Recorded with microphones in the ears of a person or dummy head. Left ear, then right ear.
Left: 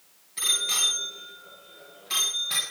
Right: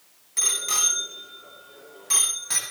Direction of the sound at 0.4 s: 40° right (ahead or behind).